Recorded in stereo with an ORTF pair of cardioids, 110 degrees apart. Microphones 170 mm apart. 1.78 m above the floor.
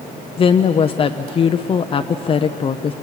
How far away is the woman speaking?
About 0.8 m.